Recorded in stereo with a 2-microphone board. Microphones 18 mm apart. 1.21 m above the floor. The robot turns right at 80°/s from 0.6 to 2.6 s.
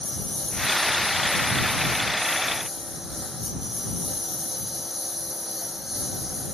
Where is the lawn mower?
30° left; by 6.5 s 170° right.